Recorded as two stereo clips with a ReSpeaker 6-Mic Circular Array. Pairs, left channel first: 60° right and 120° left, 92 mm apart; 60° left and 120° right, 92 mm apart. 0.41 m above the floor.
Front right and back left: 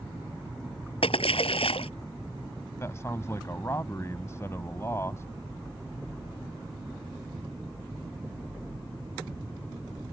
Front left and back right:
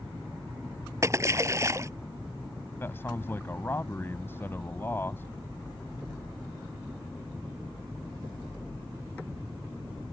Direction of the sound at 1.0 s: 60° right.